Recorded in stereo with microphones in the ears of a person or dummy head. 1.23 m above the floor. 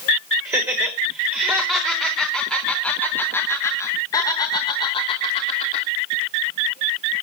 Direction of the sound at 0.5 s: 10° right (ahead or behind).